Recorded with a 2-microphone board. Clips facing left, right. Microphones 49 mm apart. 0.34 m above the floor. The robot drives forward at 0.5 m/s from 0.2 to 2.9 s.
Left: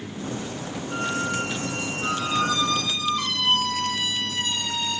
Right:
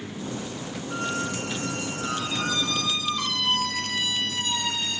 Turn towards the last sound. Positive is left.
turn(degrees=20)  # may be behind; listen again after turning